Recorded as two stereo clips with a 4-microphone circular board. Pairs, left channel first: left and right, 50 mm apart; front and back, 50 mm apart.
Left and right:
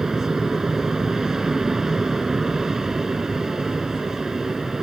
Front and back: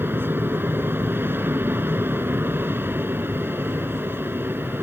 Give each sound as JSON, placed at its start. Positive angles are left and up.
{"t": 0.0, "sound": "an aircraft", "azimuth_deg": -170}